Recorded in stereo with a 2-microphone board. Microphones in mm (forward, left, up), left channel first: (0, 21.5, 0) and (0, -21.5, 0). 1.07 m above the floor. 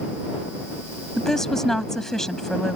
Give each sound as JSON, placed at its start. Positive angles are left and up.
{"t": 1.2, "sound": "a woman speaking", "side_deg": 10}